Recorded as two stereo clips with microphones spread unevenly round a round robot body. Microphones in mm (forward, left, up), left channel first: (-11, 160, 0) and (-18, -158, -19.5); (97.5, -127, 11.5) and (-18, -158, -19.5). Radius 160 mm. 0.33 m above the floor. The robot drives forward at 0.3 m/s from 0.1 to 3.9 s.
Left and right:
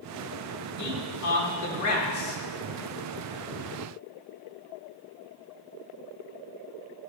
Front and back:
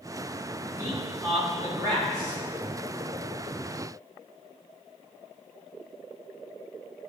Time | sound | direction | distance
0.8 | a man speaking | 105° left | 2.0 m